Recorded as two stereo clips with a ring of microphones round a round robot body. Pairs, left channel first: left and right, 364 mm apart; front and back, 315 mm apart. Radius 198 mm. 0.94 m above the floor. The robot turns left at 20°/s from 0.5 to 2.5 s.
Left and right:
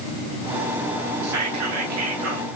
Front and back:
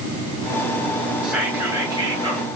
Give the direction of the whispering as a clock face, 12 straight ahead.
3 o'clock.